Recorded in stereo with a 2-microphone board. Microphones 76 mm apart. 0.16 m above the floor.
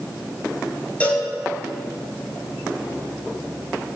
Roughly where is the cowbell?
Left.